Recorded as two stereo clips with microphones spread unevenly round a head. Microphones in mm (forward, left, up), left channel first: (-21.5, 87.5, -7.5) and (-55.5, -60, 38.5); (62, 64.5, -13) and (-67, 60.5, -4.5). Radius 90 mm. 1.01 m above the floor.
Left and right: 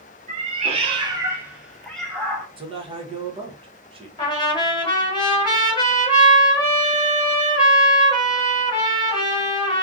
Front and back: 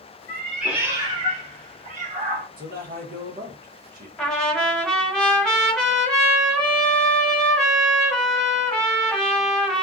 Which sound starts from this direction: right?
A cat meowing, at 0.3 s.